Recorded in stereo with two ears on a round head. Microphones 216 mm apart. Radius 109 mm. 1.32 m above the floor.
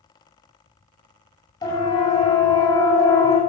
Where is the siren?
15° left (ahead or behind), 9.5 m.